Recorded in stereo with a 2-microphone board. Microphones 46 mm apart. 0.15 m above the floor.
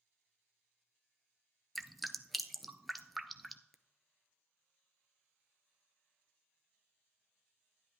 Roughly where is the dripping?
Centre.